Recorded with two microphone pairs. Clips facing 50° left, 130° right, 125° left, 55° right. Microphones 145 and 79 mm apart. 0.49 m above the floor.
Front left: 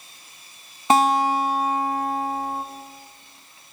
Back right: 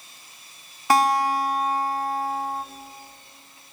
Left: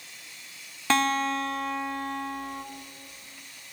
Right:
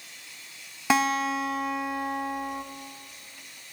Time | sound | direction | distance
0.9 | a guitar | 15° left | 0.9 m